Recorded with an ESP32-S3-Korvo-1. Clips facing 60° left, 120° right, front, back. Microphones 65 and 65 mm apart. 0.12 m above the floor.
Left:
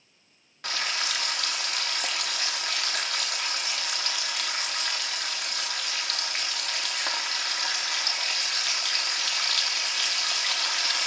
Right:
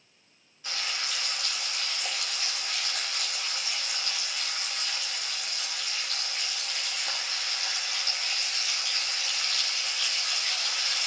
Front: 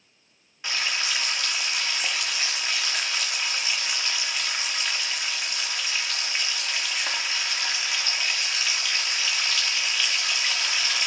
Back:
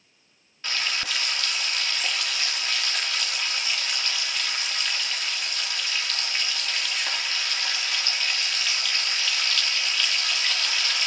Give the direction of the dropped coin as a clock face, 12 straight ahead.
I don't hear a dropped coin.